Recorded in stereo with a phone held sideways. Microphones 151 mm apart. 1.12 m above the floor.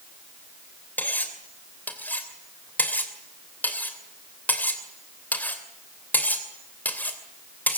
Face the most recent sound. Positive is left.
turn(degrees=10)  # may be behind; listen again after turning